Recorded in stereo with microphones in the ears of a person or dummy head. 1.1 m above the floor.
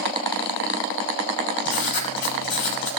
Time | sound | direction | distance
1.6 | writing | 50° left (ahead or behind) | 5.5 m